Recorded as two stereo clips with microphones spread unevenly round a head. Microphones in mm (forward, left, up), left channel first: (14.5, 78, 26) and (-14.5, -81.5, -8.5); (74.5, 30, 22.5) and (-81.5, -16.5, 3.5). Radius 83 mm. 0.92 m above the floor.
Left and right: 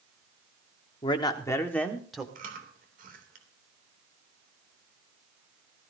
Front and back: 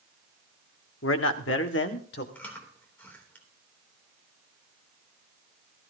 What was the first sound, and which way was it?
A man speaking, 20° left.